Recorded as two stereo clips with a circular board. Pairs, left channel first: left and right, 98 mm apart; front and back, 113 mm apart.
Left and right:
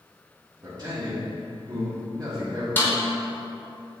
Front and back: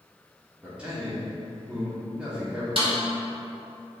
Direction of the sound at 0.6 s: 105° right.